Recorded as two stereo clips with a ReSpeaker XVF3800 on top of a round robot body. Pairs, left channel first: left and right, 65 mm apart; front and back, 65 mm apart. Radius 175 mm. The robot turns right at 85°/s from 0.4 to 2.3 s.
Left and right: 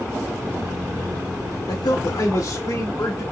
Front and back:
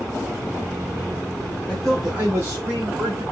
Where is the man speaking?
65° left, 1.6 m; by 3.2 s 120° left, 1.6 m.